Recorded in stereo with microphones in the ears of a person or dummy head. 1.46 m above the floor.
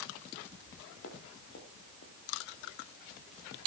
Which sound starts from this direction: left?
Footsteps, at 1.0 s.